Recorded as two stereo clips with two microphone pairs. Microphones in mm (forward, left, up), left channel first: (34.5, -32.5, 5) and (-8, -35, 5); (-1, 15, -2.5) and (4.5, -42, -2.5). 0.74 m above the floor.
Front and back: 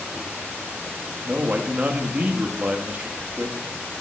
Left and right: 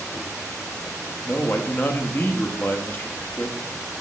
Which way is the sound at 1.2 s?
135° left.